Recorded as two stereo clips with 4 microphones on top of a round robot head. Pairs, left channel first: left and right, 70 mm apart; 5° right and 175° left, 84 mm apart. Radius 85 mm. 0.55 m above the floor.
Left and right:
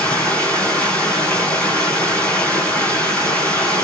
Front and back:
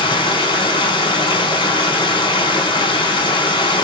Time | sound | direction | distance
0.0 | running water | 15° left | 5.5 m